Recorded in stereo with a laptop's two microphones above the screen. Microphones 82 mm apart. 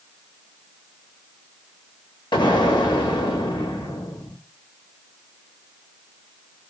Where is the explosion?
80° left, 0.7 m.